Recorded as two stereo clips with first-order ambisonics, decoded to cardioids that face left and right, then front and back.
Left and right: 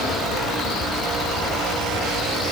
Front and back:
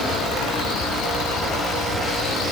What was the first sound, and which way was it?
Only background noise.